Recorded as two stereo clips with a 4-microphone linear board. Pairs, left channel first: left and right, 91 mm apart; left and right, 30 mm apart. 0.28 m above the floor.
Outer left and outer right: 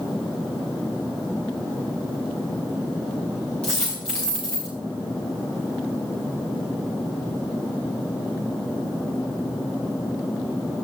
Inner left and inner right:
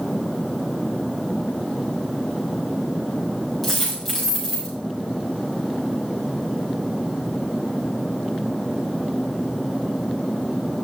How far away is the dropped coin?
About 5 m.